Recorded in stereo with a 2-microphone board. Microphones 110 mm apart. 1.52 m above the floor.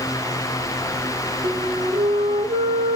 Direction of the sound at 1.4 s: 55° right (ahead or behind).